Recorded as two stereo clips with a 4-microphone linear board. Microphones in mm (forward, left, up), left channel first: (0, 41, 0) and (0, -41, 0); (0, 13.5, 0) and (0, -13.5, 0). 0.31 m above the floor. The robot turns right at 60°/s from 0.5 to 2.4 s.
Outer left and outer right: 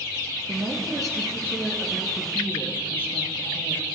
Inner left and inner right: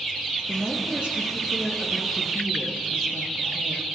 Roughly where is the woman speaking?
Right.